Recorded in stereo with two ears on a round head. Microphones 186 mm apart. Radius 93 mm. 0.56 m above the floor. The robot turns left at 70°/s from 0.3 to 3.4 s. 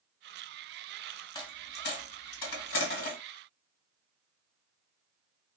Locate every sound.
1.4 s a dropped coin: 20° left (ahead or behind), 1.4 m; by 3.2 s 35° left (ahead or behind), 1.4 m